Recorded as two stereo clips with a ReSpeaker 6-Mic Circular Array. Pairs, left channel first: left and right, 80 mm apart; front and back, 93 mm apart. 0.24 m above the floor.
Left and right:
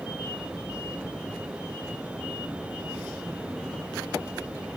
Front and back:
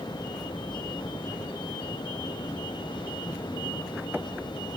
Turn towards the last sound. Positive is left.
No sound to turn to.